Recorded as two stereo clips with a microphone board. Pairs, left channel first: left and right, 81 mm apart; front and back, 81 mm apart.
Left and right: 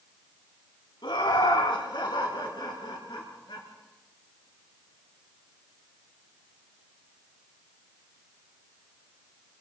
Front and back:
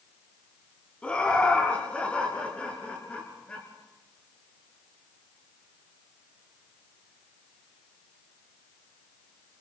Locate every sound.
1.0 s laughter: 75° left, 4 m